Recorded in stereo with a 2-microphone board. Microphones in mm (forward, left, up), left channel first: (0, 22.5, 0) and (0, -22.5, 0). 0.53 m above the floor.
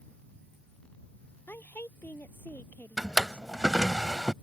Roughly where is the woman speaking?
Left.